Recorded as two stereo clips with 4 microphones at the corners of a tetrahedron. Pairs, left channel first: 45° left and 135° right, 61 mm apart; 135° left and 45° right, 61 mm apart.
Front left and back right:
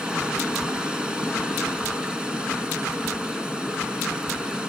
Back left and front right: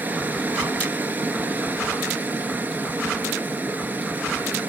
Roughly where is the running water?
Right.